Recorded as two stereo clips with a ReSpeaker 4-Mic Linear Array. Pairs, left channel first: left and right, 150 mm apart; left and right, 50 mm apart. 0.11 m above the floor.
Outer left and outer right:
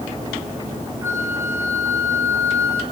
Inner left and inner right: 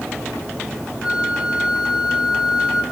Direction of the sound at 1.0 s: 15° right (ahead or behind).